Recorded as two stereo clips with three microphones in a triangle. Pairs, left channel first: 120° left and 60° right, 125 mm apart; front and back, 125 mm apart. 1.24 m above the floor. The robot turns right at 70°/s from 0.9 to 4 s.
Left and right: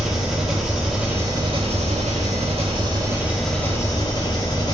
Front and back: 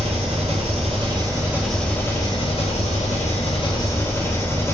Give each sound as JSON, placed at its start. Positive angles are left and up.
{"t": 0.0, "sound": "an engine running", "azimuth_deg": -145, "distance_m": 1.8}